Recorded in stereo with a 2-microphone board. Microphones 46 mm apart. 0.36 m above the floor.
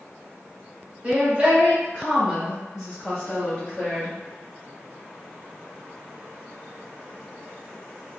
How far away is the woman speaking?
About 1.4 m.